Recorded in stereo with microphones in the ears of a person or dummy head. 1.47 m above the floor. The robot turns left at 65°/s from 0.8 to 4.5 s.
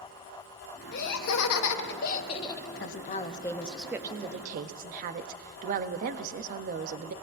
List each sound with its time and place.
0.9 s laughter: 125° left, 1.0 m; by 2.7 s 10° left, 1.0 m
2.8 s a woman speaking: 60° left, 0.7 m; by 7.1 s 50° right, 0.7 m